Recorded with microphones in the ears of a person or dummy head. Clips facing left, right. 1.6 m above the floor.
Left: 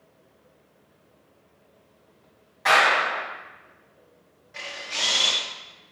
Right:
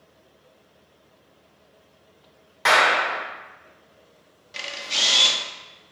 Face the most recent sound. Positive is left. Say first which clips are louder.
# right 2 dB
turn(degrees=-50)  # may be behind; listen again after turning